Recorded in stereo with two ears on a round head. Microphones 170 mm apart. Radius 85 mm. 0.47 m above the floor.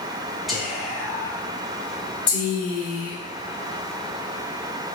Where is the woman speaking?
25° left (ahead or behind), 2.5 m.